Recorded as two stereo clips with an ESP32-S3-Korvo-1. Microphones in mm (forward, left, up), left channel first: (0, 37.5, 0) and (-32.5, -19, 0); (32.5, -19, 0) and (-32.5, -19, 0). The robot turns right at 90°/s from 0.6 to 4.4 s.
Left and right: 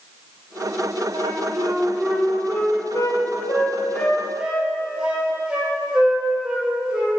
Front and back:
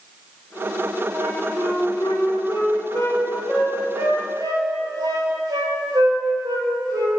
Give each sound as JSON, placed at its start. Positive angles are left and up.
{"t": 1.1, "sound": "a flute", "azimuth_deg": -130, "distance_m": 3.0}